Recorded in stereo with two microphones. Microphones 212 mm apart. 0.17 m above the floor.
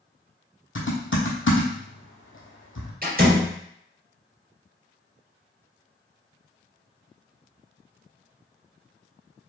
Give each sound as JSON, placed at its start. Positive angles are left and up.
{"t": 0.8, "sound": "typing on a keyboard", "side_deg": 75, "distance_m": 1.4}
{"t": 3.0, "sound": "a door slam", "side_deg": -45, "distance_m": 2.5}